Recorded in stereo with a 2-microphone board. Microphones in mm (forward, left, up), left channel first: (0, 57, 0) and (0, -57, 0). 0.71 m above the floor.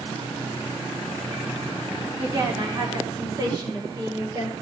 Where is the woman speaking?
35° right (ahead or behind), 2 m; by 4.5 s 40° right (ahead or behind), 3.5 m.